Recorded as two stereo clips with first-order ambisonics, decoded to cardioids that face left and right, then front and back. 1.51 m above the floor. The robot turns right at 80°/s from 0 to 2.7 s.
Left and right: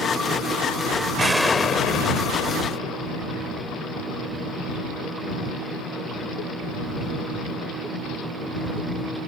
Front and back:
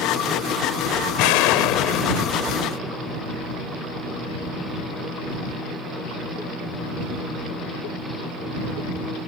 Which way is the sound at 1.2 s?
15° right.